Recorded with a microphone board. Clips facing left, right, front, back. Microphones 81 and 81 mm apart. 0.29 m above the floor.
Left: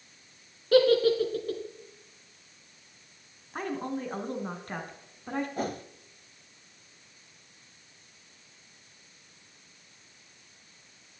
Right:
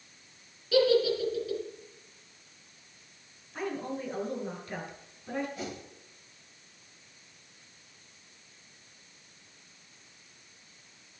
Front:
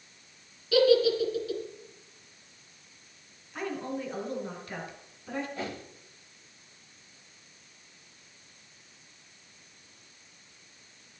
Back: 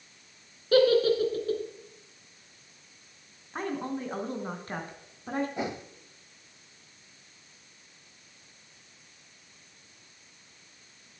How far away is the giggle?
About 3 m.